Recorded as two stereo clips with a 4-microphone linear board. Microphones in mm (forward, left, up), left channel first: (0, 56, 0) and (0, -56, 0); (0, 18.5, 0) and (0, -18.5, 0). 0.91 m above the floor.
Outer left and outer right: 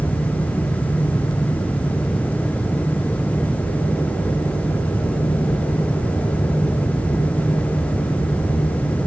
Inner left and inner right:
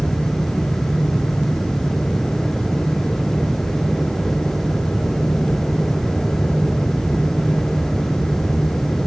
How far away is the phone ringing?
No phone ringing in this recording.